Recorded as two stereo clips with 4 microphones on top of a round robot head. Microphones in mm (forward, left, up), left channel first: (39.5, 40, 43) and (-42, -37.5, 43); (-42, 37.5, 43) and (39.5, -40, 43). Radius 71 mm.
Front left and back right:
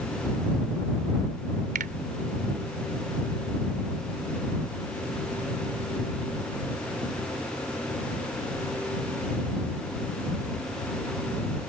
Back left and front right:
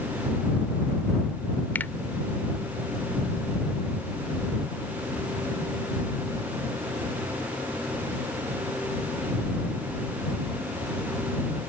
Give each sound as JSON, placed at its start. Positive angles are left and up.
{"t": 1.8, "sound": "a finger snap", "azimuth_deg": -150}